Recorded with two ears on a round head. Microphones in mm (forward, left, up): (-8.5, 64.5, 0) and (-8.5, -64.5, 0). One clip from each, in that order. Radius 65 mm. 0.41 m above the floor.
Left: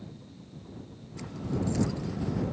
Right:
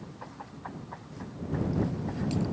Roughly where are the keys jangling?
I don't hear keys jangling.